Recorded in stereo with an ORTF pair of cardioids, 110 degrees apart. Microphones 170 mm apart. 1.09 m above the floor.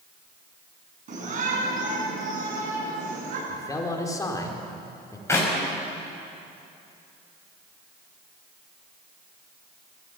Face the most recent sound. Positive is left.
turn(degrees=15)